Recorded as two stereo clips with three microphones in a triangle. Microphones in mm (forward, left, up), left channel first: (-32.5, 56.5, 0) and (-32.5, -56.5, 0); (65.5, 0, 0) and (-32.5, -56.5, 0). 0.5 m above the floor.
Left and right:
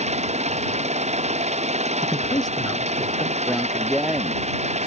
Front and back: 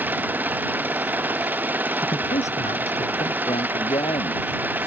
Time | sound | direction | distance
0.0 | an engine running | 75° right | ?
2.0 | a man speaking | 35° left | ?
3.5 | a man speaking | 5° right | ?